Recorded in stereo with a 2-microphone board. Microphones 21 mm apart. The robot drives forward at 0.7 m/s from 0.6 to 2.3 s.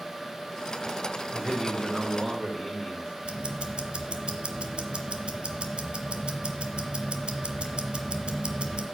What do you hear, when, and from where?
1.3 s a man speaking: 10° right (ahead or behind), 1.9 m; by 3.1 s 5° right (ahead or behind), 2.5 m
3.2 s ticking: 70° right (ahead or behind), 1.1 m